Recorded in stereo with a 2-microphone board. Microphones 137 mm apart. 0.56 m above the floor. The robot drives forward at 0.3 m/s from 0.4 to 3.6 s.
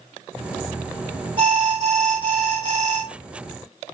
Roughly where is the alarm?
Right.